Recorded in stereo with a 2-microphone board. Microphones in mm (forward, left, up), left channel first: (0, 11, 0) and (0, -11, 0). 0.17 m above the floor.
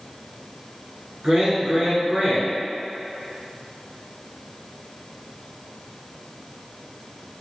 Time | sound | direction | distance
1.2 | a man speaking | 35° right (ahead or behind) | 1.4 m